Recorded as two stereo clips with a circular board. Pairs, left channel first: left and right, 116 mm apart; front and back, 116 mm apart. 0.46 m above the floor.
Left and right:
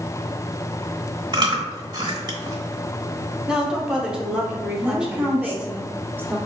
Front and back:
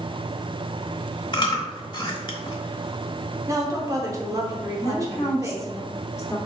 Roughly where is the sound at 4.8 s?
Ahead right.